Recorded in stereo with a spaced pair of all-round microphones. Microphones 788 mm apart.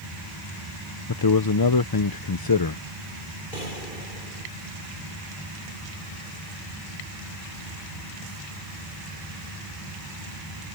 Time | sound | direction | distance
1.1 | a man speaking | 30° left (ahead or behind) | ?
3.5 | a gunshot | 80° left | ?